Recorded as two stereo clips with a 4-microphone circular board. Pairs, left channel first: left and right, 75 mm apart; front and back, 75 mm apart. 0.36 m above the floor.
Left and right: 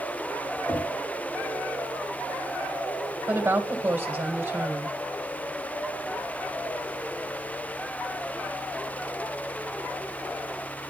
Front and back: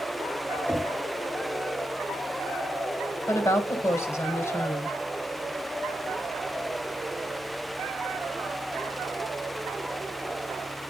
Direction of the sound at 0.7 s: 130° left.